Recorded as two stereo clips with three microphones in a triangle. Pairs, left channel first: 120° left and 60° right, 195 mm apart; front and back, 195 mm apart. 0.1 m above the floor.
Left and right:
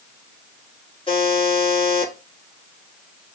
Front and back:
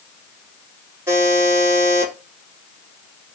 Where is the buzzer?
120° left, 1.5 m.